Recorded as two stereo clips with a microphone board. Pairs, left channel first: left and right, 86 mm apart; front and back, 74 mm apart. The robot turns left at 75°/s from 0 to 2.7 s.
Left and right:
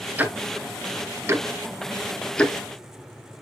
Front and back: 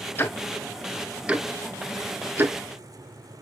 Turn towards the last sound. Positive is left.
turn(degrees=135)